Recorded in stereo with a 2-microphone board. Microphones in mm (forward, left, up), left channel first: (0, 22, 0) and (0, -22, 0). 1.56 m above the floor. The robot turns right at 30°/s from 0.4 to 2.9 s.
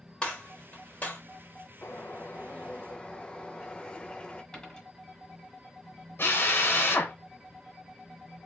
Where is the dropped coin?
20° left (ahead or behind), 1.9 m.